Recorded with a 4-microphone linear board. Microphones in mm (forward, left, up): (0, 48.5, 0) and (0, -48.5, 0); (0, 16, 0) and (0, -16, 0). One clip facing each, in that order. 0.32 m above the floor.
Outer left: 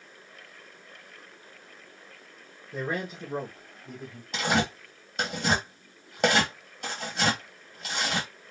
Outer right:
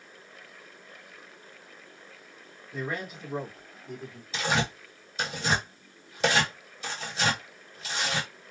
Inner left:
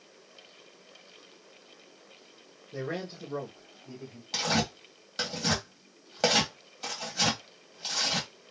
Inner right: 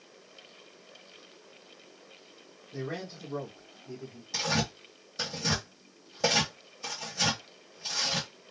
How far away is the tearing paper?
About 2.0 m.